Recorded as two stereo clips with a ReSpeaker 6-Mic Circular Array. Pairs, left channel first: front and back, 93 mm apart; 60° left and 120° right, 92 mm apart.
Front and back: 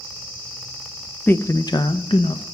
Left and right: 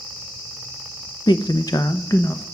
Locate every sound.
1.3 s a man speaking: 65° left, 0.7 m; by 2.4 s straight ahead, 1.1 m